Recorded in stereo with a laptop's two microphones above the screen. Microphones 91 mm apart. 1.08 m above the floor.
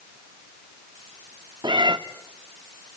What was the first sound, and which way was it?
A cat meowing, 55° right (ahead or behind).